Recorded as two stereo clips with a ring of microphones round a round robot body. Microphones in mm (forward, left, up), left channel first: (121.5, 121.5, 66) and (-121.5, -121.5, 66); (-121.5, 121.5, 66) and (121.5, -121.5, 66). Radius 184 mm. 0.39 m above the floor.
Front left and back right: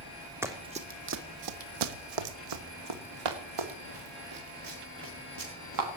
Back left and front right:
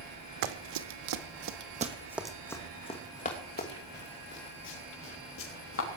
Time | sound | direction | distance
0.4 | running footsteps | 50° right | 1.7 m